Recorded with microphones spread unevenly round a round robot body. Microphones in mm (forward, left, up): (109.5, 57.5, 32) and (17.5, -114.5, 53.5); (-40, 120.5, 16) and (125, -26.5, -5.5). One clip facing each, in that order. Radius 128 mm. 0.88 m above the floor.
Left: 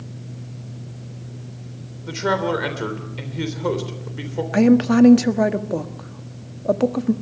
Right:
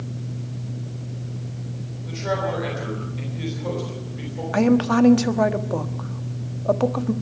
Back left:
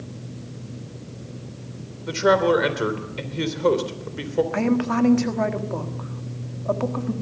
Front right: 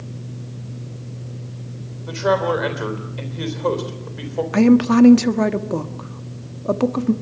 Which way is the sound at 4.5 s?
5° right.